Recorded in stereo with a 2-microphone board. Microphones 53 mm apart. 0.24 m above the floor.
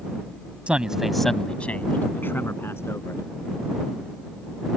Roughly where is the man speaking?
Right.